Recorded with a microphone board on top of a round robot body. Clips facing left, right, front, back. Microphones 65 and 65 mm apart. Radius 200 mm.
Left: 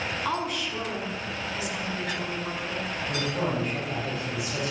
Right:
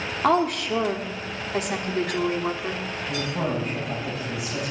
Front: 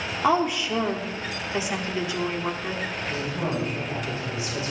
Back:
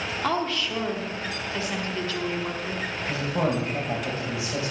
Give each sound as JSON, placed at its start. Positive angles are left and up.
{"t": 0.2, "sound": "a woman speaking", "azimuth_deg": -70, "distance_m": 1.4}
{"t": 3.0, "sound": "a woman speaking", "azimuth_deg": -175, "distance_m": 3.5}